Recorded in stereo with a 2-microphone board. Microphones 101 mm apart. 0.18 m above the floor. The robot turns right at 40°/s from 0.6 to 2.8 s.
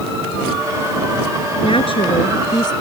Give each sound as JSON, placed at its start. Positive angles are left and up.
{"t": 1.6, "sound": "a woman speaking", "azimuth_deg": 85}